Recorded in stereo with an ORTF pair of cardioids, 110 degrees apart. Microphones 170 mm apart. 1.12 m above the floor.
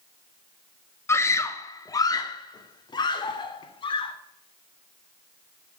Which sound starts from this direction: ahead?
A scream, at 1.1 s.